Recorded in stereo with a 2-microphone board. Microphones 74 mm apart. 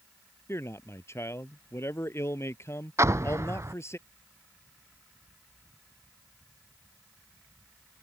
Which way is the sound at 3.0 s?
40° right (ahead or behind).